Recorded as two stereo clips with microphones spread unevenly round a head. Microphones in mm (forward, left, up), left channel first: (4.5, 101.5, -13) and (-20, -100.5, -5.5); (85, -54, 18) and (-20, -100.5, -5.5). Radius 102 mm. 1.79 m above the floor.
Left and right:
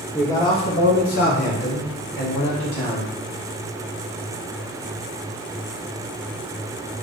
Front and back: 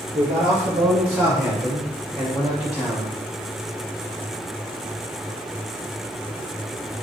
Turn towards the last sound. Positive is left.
turn(degrees=105)